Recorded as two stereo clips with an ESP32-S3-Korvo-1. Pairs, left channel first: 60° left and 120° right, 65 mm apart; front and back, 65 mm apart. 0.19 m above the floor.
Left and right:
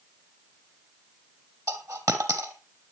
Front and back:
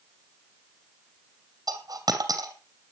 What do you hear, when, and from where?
1.7 s a dropped coin: 160° right, 2.5 m